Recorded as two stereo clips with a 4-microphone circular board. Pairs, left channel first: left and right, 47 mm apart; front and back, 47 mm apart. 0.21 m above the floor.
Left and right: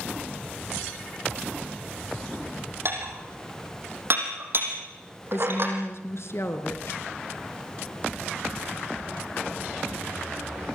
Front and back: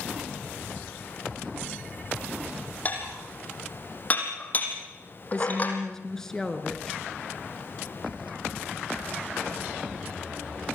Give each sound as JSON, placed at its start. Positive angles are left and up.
{"t": 2.9, "sound": "dishes clattering", "azimuth_deg": -55, "distance_m": 5.0}
{"t": 5.3, "sound": "a woman speaking", "azimuth_deg": 80, "distance_m": 3.0}